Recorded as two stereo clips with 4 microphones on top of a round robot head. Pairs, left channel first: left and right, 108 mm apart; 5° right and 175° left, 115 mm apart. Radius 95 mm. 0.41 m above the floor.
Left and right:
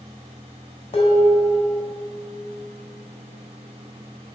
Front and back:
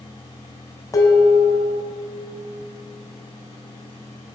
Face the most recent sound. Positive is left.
turn(degrees=55)